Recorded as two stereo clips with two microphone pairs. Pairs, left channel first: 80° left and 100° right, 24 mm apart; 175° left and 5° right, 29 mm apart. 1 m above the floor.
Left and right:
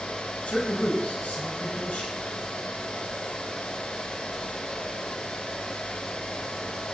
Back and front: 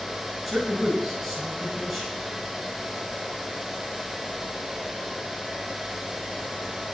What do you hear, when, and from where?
0.5 s a man speaking: 85° left, 8.5 m